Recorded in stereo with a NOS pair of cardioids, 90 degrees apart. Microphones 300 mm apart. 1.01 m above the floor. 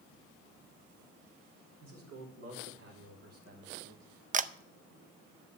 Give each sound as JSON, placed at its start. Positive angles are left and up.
{"t": 1.8, "sound": "a man speaking", "azimuth_deg": -65, "distance_m": 4.5}
{"t": 4.3, "sound": "a camera shutter", "azimuth_deg": -30, "distance_m": 0.5}